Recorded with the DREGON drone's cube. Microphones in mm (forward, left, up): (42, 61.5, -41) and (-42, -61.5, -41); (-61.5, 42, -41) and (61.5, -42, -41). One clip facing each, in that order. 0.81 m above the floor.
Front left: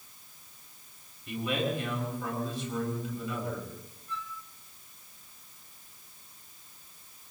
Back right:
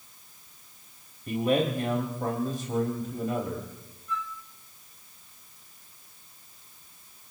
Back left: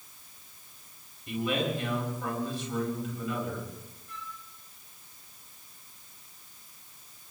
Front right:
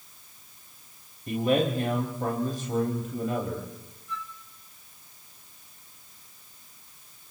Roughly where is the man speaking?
Right.